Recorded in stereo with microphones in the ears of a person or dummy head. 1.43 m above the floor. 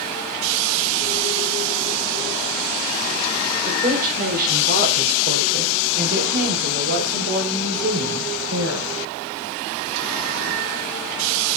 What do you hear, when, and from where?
3.6 s a woman speaking: 45° right (ahead or behind), 5 m; by 8.9 s 75° right (ahead or behind), 6 m